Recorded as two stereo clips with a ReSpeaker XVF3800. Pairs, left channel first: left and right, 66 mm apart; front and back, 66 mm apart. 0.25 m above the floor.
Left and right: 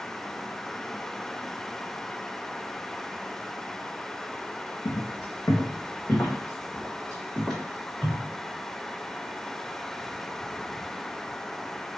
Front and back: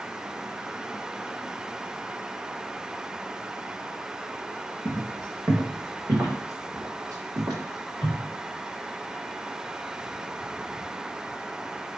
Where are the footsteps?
125° left, 1.6 m; by 8.2 s 175° left, 2 m.